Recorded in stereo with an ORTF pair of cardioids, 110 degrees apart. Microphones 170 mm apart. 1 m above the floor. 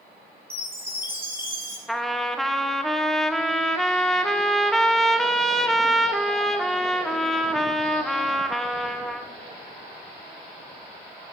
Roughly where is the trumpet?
Ahead.